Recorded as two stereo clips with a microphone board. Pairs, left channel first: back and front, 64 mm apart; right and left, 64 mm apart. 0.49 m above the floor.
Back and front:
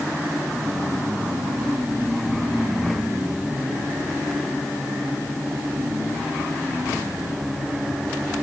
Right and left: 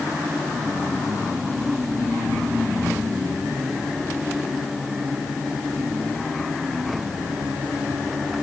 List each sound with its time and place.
Only background noise.